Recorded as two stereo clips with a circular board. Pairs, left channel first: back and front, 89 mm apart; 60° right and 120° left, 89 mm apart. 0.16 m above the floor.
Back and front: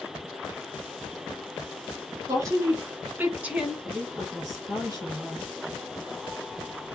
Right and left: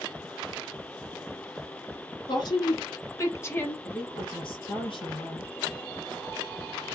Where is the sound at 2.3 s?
45° right, 2 m; by 3.8 s 75° right, 1.3 m.